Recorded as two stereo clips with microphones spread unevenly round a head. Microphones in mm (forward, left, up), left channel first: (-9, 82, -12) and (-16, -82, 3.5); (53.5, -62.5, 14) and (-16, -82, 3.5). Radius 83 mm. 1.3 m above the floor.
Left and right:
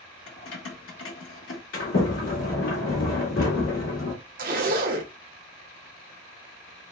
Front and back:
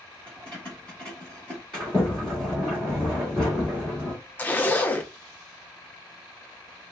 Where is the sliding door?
100° left, 2 m.